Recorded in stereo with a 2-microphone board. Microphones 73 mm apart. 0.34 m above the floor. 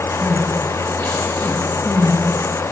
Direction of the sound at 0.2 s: 30° left (ahead or behind).